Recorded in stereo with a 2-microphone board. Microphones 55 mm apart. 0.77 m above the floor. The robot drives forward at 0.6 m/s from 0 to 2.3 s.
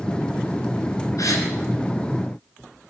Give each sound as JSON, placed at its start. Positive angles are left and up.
{"t": 1.2, "sound": "a gasp", "side_deg": 75, "distance_m": 3.0}